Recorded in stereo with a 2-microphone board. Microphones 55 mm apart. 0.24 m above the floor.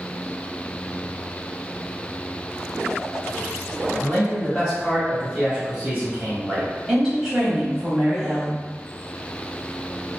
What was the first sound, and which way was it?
A man speaking, 20° left (ahead or behind).